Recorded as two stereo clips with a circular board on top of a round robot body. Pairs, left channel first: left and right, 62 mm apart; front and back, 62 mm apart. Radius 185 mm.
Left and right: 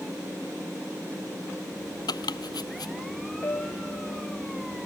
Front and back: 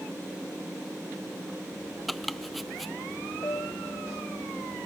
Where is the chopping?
90° left.